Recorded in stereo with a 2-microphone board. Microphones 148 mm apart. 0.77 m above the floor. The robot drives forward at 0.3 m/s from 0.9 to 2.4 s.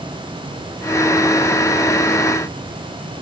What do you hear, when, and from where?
Only background noise.